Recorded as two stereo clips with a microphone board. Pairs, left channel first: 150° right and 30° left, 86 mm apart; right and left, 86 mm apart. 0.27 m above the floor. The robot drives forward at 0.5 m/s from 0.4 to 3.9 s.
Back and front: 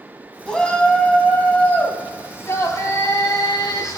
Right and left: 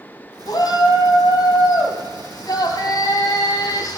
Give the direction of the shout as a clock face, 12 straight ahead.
2 o'clock.